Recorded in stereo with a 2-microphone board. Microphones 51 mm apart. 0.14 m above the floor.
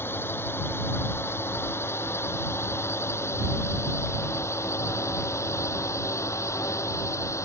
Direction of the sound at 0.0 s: 50° left (ahead or behind).